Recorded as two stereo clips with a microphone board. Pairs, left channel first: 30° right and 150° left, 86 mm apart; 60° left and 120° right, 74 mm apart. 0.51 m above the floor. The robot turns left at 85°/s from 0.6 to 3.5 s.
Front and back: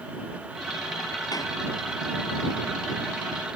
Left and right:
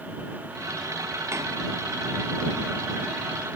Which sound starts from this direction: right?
A door slam, at 1.3 s.